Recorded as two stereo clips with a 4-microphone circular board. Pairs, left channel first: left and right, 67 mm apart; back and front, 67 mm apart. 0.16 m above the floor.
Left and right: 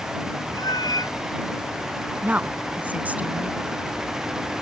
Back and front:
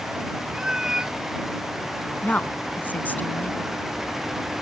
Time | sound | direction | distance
0.5 | a cat meowing | 80° left | ?
2.2 | a woman speaking | 140° right | ?